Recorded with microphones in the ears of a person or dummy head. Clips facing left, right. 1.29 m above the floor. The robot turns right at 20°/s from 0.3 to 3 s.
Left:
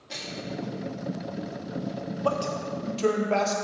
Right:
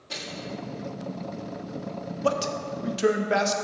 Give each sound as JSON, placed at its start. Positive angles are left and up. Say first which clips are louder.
{"t": 0.1, "sound": "a microwave", "louder": "even", "side_deg": 5, "distance_m": 1.8}
{"t": 2.2, "sound": "a man speaking", "louder": "right 2 dB", "side_deg": -25, "distance_m": 0.6}